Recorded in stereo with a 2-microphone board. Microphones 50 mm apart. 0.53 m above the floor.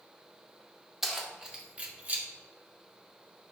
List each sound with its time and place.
1.0 s keys jangling: 5° right (ahead or behind), 0.8 m; by 2.2 s 35° right (ahead or behind), 0.8 m